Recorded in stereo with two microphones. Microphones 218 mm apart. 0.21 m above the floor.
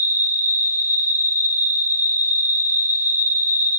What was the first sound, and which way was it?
An insect, 10° right (ahead or behind).